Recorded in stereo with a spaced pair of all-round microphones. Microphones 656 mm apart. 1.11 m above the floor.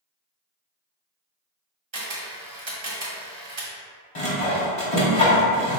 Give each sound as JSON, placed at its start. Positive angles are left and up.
{"t": 1.9, "sound": "a camera shutter", "side_deg": -45, "distance_m": 1.0}
{"t": 4.2, "sound": "sawing", "side_deg": 55, "distance_m": 1.2}